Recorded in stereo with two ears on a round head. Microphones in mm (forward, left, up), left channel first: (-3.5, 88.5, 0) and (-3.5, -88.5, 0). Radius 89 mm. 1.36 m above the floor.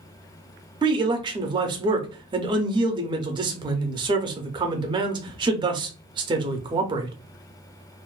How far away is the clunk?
No clunk in this recording.